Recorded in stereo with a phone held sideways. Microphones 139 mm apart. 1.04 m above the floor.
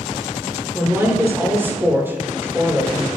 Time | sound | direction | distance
0.7 | a woman speaking | 20° right (ahead or behind) | 3 m